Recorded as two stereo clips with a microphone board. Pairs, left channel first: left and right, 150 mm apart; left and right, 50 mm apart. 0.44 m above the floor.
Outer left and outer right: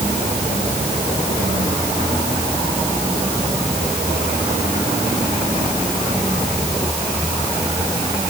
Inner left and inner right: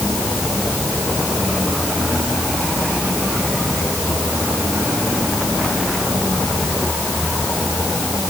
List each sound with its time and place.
Only background noise.